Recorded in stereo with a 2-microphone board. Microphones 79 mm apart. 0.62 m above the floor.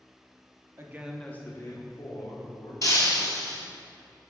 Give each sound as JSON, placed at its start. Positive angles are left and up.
{"t": 0.8, "sound": "a man speaking", "side_deg": -35, "distance_m": 0.9}
{"t": 2.8, "sound": "breaking glass", "side_deg": 45, "distance_m": 1.6}